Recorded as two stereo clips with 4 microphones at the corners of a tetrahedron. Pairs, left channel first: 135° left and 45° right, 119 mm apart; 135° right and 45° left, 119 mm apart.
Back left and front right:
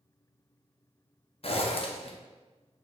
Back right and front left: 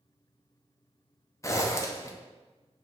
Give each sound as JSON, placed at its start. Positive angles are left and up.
{"t": 1.4, "sound": "a zipper", "azimuth_deg": 160, "distance_m": 0.5}